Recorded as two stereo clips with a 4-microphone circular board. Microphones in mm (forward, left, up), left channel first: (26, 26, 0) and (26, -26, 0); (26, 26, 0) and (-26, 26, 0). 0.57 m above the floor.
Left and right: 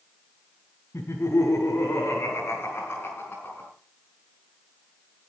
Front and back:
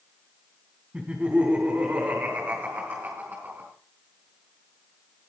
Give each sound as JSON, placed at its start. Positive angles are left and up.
{"t": 0.9, "sound": "laughter", "azimuth_deg": 120, "distance_m": 4.0}